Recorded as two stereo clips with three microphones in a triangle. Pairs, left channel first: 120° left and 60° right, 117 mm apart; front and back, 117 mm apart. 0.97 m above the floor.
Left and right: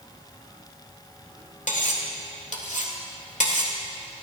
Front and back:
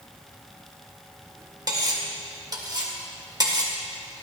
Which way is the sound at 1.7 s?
120° left.